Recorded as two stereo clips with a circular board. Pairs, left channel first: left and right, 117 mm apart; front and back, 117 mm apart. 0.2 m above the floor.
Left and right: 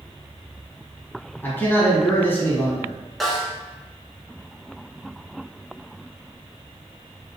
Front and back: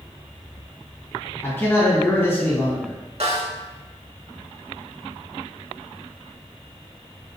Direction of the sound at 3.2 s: Straight behind.